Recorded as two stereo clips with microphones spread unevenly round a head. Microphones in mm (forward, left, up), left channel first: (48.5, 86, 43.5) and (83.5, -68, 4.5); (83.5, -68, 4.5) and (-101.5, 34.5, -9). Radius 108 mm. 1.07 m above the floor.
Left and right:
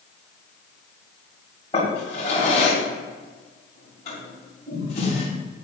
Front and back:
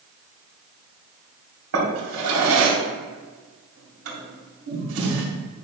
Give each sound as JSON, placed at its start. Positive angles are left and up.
{"t": 1.7, "sound": "a drawer", "azimuth_deg": 165, "distance_m": 2.5}